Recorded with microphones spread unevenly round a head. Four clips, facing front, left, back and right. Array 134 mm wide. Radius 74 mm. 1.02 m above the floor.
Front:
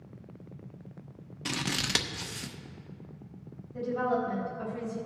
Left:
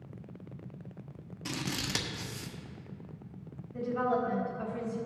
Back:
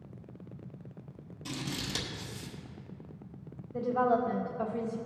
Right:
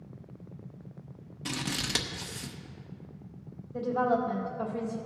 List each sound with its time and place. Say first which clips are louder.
1.4 s scissors: right 2 dB, front 4 dB; 5° right, 0.8 m
3.7 s a woman speaking: right 3 dB, back 2 dB; 155° right, 3 m